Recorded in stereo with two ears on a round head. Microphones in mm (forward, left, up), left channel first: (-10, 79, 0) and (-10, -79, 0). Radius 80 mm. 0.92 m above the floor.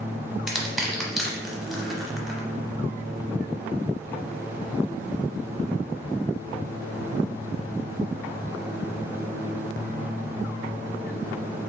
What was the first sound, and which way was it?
Crushing, 5° right (ahead or behind).